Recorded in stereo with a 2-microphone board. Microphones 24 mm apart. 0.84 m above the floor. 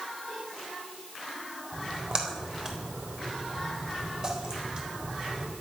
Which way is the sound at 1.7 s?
30° right (ahead or behind).